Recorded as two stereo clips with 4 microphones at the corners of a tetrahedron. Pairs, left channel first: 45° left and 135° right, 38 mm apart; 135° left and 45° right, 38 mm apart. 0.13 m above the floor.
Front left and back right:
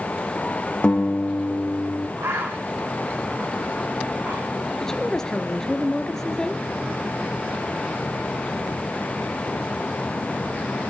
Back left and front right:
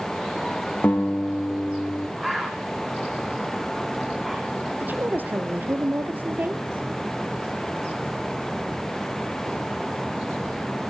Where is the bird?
130° right, 3.5 m.